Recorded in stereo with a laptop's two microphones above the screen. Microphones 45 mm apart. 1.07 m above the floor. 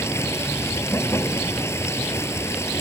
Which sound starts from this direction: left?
Running water, at 0.0 s.